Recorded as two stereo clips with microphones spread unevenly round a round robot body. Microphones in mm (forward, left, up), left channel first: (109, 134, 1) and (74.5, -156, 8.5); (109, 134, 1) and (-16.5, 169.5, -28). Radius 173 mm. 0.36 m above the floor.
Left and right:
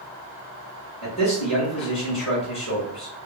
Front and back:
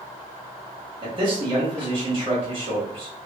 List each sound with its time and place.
1.0 s a man speaking: 150° left, 1.4 m